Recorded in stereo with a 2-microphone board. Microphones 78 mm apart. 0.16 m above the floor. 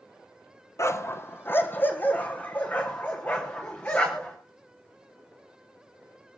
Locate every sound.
0.8 s a dog barking: 40° left (ahead or behind), 1.0 m; by 4.4 s 20° left (ahead or behind), 5 m